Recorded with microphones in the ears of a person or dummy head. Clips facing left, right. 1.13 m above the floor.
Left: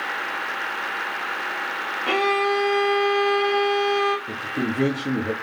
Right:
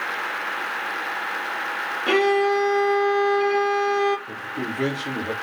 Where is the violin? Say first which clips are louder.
Right 4 dB; 15° right (ahead or behind), 0.8 m.